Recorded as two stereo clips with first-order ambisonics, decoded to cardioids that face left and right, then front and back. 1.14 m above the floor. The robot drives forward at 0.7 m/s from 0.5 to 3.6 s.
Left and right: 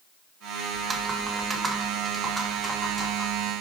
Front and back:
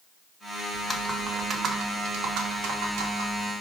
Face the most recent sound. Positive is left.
turn(degrees=-175)